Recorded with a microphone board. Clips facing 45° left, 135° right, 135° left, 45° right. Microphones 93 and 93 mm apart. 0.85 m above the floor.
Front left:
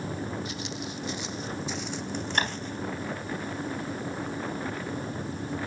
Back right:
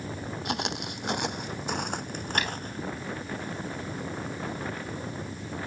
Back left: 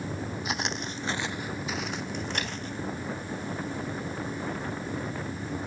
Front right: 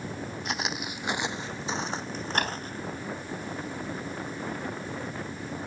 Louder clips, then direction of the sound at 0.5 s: Back right 3 dB, front right 1 dB; 140° right.